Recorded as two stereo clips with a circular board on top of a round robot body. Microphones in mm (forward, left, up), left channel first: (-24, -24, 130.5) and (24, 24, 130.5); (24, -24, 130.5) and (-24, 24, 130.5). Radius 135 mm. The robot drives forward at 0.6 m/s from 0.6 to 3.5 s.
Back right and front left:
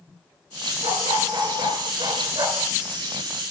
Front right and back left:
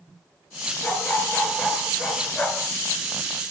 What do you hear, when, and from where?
0.8 s a dog barking: 25° left, 4 m; by 2.7 s 35° left, 3 m